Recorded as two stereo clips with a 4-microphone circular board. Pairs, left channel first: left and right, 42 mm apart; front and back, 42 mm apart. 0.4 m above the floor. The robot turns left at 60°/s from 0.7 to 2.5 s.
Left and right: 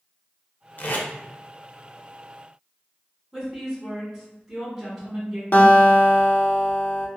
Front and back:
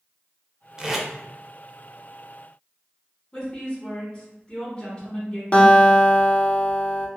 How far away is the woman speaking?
About 1.4 m.